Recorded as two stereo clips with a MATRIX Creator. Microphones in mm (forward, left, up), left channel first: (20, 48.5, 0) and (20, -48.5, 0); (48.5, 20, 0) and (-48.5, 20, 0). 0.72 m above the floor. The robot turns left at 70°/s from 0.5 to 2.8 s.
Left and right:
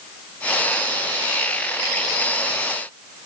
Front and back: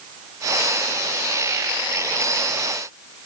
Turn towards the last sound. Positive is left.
No sound to turn to.